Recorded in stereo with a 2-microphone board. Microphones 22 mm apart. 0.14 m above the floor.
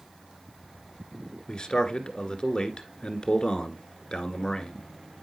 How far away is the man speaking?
About 1.6 m.